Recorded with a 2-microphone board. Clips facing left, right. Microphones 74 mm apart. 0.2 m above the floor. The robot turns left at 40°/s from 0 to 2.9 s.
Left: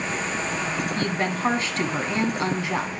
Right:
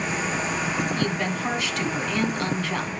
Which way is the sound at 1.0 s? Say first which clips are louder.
Left 1 dB; 100° left.